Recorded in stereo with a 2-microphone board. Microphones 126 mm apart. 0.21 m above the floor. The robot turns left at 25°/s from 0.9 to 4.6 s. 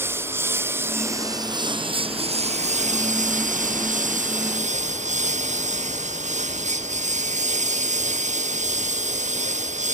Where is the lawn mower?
20° right; by 9.9 s 110° right.